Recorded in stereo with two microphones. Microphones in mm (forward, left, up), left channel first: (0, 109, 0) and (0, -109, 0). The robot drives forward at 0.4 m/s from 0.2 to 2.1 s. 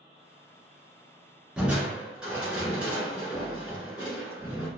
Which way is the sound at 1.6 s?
5° right (ahead or behind).